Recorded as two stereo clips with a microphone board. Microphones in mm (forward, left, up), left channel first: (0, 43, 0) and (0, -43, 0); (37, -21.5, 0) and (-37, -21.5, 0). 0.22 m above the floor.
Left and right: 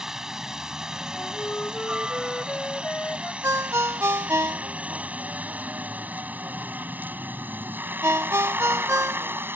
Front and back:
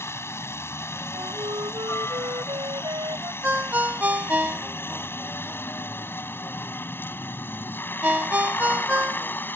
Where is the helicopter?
10° right; by 9.6 s 45° right.